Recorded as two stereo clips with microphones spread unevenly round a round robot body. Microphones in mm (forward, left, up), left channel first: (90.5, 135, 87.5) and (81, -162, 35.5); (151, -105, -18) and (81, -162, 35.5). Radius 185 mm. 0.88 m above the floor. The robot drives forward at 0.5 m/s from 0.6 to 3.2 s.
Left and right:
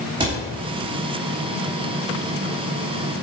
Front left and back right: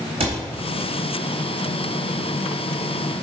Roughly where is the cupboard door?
Behind.